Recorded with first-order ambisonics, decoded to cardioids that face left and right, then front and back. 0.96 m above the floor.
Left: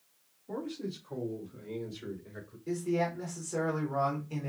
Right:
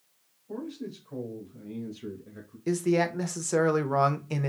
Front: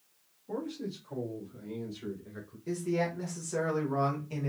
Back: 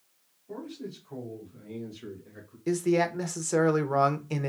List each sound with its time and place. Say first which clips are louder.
0.5 s a man speaking: even, front 2 dB; 55° left, 1.8 m; by 2.6 s 65° left, 3 m
2.7 s a man speaking: right 6 dB, back 6 dB; 130° right, 0.7 m